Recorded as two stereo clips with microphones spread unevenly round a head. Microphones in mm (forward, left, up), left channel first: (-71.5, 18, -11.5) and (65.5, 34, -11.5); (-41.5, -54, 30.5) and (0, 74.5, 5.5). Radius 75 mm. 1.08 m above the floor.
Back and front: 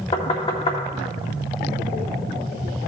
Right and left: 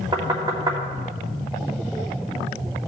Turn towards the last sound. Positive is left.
turn(degrees=135)